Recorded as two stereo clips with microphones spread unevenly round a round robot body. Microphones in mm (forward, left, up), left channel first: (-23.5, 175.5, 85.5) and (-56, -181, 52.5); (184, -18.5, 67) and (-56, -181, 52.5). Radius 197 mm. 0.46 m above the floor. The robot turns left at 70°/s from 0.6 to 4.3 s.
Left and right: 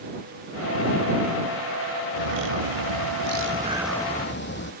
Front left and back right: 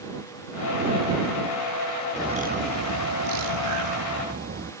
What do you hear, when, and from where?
2.2 s a bird: 65° right; by 4.7 s 145° left